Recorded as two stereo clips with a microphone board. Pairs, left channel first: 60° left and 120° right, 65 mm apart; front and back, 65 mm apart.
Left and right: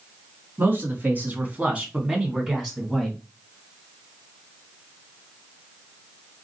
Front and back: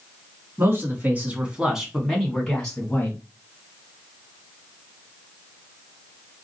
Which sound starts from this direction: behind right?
A man speaking, at 0.6 s.